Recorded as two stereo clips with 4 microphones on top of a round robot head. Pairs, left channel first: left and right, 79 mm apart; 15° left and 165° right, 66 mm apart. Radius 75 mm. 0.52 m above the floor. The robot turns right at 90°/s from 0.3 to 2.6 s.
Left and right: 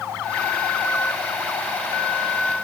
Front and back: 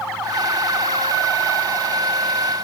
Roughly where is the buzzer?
I don't hear a buzzer.